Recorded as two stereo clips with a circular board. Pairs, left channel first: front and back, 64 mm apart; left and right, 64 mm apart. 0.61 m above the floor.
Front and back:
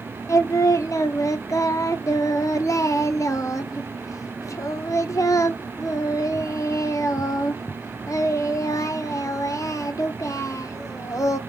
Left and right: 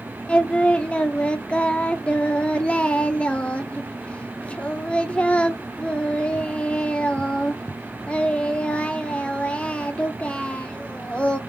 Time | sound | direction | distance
0.3 | singing | 20° left | 0.6 m